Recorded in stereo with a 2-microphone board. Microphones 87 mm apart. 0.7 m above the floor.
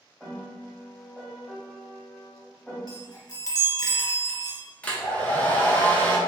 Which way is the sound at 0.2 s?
5° left (ahead or behind).